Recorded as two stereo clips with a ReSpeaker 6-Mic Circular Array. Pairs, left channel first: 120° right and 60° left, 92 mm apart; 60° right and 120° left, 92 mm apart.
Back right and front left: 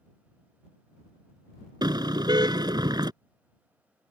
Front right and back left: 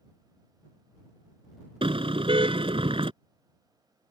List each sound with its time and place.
1.8 s a car horn: 100° left